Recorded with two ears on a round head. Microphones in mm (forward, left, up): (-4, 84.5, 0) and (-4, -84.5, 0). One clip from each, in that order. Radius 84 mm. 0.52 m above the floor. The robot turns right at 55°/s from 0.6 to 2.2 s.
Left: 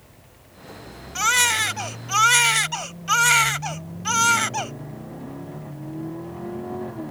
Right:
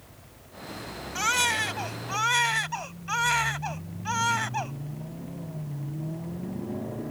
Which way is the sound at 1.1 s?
25° left.